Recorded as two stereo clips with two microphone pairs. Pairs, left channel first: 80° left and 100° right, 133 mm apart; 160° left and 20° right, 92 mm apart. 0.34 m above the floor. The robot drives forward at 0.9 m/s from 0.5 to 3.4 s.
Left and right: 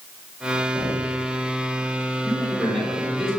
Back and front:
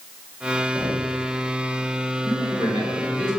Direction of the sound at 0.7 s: 95° left.